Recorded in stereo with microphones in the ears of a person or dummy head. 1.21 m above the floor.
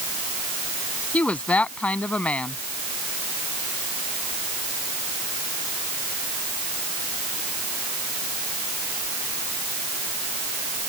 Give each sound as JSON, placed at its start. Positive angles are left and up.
{"t": 1.1, "sound": "a woman speaking", "side_deg": 10}